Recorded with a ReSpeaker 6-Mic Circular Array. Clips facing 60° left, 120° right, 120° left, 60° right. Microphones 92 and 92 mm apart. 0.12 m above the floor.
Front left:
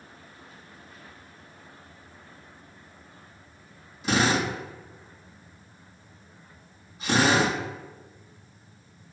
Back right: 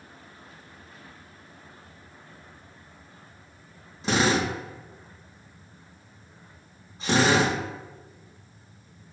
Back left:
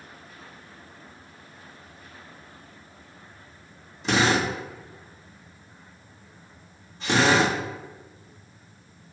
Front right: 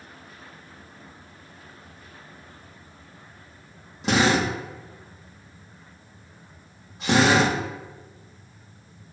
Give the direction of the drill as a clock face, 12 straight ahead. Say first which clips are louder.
Back right 1 dB, front right 1 dB; 2 o'clock.